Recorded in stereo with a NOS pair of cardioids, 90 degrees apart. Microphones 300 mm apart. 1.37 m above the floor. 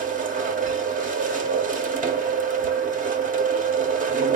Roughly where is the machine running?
Ahead right.